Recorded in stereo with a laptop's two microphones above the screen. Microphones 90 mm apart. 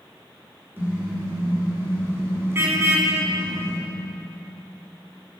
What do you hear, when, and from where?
0.8 s a car horn: 25° right (ahead or behind), 7 m; by 3.8 s 30° right (ahead or behind), 5 m